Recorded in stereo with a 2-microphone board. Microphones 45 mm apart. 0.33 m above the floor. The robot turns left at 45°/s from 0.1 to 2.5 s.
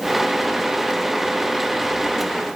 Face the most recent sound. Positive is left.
No sound to turn to.